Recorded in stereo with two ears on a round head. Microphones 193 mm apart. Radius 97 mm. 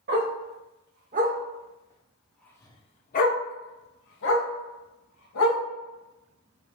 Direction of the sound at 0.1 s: 55° right (ahead or behind).